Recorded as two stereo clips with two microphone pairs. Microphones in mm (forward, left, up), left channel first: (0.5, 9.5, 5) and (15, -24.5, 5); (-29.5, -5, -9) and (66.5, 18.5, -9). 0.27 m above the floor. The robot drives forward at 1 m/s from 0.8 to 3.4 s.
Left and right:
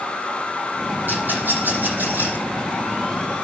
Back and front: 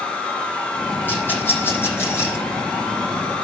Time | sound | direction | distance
1.1 | a rattle | 95° right | 9 m